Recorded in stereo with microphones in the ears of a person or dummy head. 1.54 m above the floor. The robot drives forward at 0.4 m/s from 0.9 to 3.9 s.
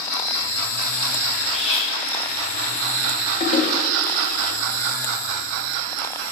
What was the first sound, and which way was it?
Cutlery clinking, 30° left (ahead or behind).